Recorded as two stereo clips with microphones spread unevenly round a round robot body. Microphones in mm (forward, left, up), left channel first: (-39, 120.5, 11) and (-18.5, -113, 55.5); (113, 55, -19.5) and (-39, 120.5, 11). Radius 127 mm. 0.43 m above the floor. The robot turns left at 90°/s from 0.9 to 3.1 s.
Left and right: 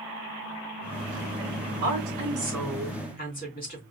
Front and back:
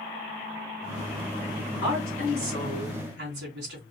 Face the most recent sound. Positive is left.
turn(degrees=145)